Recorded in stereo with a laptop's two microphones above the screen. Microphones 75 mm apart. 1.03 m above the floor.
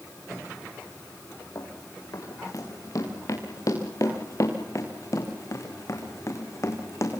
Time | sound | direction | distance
1.6 | running footsteps | 50° left (ahead or behind) | 7.5 m